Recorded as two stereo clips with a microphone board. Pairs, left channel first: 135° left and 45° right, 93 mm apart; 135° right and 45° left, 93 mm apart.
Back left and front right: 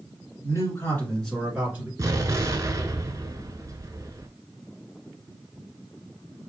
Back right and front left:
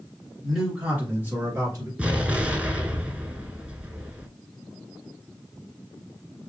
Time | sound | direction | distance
0.4 | a man speaking | 135° left | 1.9 m
2.0 | an explosion | 20° right | 0.6 m